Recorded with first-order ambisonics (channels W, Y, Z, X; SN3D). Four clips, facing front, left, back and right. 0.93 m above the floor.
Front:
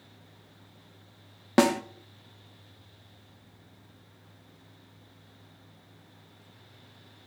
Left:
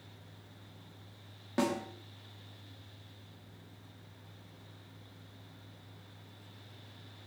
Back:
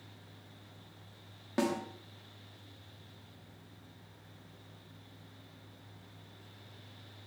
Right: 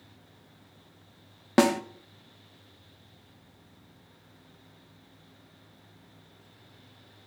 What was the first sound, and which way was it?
A snare drum, 45° right.